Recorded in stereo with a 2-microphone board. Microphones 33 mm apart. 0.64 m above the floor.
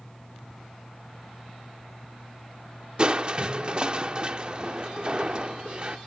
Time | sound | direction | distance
3.0 | crushing | 35° right (ahead or behind) | ?